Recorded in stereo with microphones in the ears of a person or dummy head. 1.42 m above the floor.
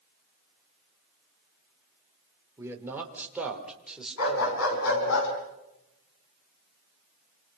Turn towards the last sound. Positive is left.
turn(degrees=80)